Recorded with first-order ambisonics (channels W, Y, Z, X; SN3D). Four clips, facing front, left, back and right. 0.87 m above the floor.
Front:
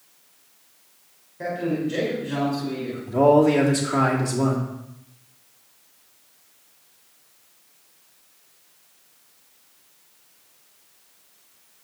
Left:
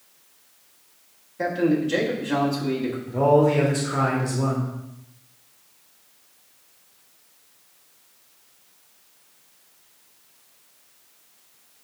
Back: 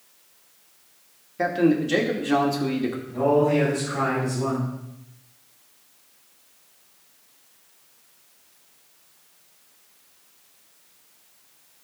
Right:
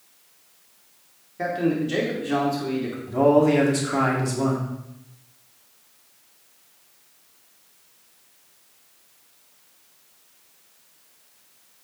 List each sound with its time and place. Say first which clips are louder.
1.4 s a man speaking: left 2 dB, back 5 dB; 170° right, 2.5 m
3.1 s a man speaking: right 1 dB, front 5 dB; 45° right, 2.5 m